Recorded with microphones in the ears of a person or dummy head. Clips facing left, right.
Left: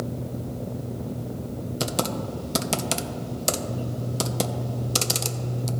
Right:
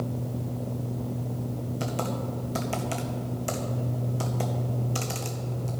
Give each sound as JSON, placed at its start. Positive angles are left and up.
{"t": 1.8, "sound": "typing on a keyboard", "side_deg": 55, "distance_m": 0.7}